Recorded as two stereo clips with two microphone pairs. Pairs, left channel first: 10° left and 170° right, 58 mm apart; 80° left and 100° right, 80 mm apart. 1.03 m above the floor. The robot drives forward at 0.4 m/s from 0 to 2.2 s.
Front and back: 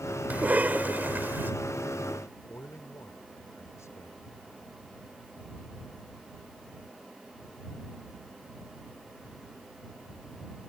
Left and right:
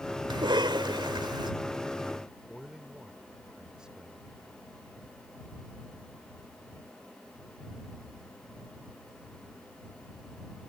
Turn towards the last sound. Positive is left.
turn(degrees=-20)